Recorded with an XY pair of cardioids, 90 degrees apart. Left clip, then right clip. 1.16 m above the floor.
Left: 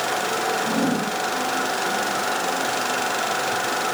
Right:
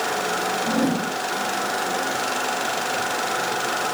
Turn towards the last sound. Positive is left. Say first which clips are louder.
# even
turn(degrees=-30)